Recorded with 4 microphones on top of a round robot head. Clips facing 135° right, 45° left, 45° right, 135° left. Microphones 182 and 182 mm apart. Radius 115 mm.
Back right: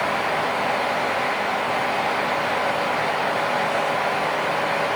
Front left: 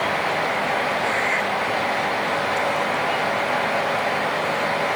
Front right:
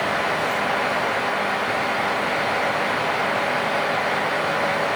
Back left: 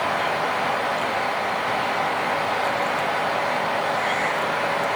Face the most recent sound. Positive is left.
No sound to turn to.